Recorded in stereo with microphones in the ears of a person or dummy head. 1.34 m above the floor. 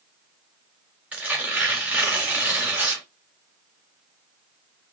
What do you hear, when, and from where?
1.1 s tearing paper: 10° right (ahead or behind), 1.3 m